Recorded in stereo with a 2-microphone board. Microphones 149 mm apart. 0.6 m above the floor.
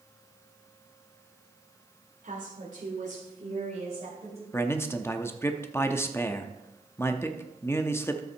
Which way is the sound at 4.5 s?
15° left (ahead or behind).